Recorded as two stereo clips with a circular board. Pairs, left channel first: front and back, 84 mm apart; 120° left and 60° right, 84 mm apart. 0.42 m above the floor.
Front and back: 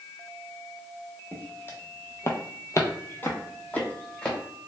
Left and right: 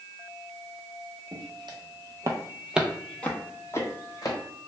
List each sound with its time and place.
1.3 s footsteps: 65° right, 0.9 m; by 4.4 s 80° left, 1.0 m